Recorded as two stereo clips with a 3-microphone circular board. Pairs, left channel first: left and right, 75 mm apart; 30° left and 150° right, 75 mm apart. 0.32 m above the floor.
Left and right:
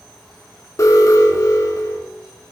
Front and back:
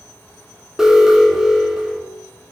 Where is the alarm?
130° left, 3 m.